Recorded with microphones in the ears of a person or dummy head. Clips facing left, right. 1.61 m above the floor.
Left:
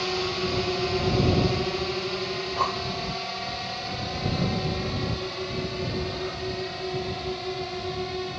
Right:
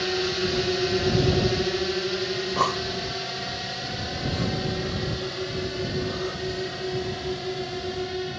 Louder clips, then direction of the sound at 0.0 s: Right 2 dB; 20° right (ahead or behind).